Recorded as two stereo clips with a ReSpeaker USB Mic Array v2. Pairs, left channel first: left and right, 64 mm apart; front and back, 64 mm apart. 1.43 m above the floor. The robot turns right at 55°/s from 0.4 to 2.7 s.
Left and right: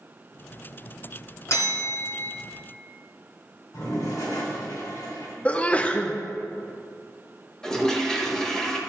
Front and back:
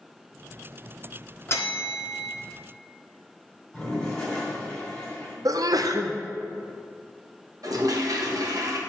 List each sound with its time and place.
1.5 s a bell: 50° left, 1.7 m; by 2.3 s 95° left, 1.7 m
3.7 s a toilet flushing: 85° left, 3 m
5.5 s a sneeze: 160° left, 0.5 m
7.6 s a toilet flushing: 170° left, 1.1 m